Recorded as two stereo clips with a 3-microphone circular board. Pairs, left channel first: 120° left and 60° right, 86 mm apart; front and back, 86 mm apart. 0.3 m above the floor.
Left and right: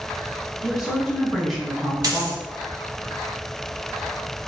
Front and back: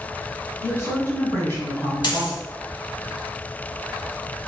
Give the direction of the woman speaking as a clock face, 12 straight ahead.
11 o'clock.